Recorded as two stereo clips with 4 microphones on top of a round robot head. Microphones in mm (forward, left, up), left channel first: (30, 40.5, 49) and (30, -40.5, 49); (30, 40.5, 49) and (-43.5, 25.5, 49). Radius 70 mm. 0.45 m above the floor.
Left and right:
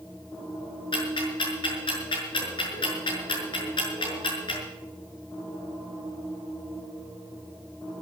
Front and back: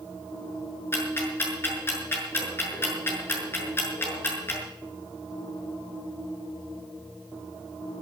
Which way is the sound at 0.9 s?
70° left.